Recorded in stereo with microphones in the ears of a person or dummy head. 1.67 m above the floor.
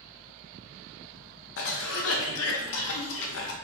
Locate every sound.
0.0 s a fan: 65° right (ahead or behind), 1.0 m
1.6 s a cough: 65° left (ahead or behind), 0.5 m